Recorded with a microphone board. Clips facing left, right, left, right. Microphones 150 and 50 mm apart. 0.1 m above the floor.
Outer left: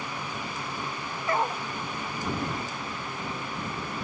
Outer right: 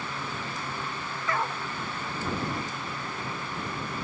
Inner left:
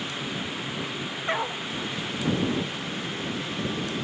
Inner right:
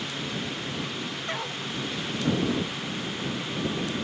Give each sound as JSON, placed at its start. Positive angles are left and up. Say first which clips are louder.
{"t": 1.3, "sound": "a dog barking", "louder": "outer left 3 dB, inner left 8 dB", "side_deg": 25}